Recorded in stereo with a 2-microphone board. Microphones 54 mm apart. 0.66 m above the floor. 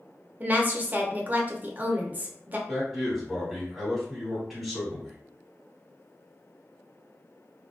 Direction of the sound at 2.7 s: Centre (ahead or behind).